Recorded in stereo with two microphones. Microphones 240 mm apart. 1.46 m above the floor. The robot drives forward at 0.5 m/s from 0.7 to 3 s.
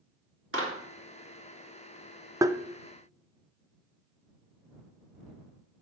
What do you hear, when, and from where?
0.5 s a clap: 55° right (ahead or behind), 2.5 m; by 0.8 s 50° right (ahead or behind), 2.5 m
2.4 s tapping: 15° right (ahead or behind), 0.5 m; by 2.6 s 10° right (ahead or behind), 0.6 m